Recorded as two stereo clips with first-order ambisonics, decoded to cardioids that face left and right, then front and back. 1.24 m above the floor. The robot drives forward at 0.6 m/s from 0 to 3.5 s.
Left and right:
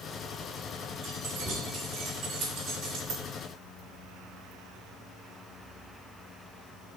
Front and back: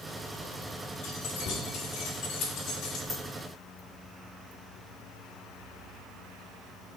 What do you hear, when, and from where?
1.0 s keys jangling: 35° right, 3 m; by 3.0 s 50° right, 2 m
3.1 s a dropped coin: 90° right, 1.5 m